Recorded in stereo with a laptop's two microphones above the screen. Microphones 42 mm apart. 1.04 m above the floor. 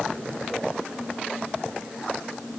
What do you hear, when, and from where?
Only background noise.